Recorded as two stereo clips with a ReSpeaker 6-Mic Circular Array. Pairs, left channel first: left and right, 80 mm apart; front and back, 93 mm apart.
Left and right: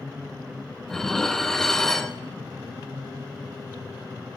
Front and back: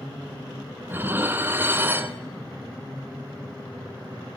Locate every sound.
0.9 s dishes clattering: 165° left, 0.9 m